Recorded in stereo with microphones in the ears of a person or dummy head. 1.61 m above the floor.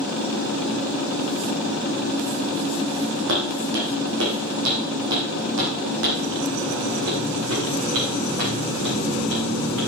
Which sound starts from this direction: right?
Footsteps, at 3.3 s.